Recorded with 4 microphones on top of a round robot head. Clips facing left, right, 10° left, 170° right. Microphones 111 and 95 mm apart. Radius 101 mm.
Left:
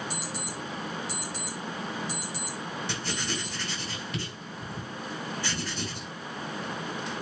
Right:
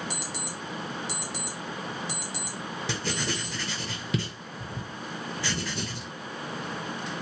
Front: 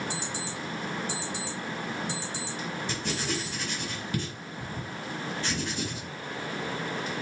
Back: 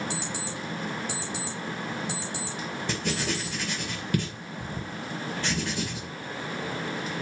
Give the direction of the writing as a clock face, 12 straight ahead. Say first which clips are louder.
Right 2 dB, back 4 dB; 4 o'clock.